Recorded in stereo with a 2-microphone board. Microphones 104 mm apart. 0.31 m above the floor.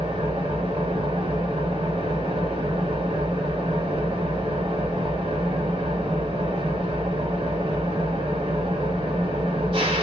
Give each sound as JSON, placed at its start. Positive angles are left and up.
{"t": 0.0, "sound": "an engine running", "side_deg": -55, "distance_m": 1.0}